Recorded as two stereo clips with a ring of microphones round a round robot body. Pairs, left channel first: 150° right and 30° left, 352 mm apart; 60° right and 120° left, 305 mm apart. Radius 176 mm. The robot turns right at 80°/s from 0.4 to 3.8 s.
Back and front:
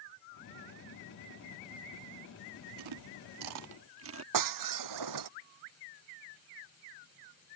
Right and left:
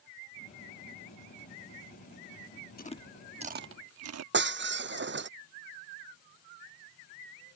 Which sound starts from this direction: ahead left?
Breaking glass, at 4.3 s.